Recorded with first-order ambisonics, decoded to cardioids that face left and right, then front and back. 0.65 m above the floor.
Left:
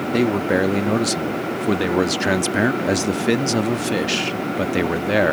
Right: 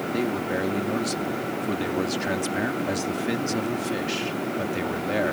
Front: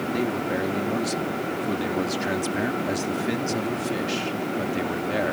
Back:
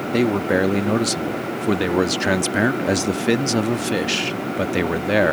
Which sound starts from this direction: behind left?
A man speaking, at 0.1 s.